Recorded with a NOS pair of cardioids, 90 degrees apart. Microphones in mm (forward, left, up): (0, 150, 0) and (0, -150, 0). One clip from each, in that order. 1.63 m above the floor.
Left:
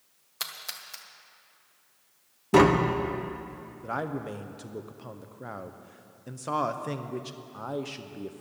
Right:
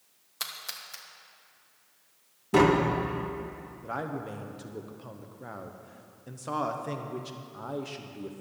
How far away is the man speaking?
About 1.0 m.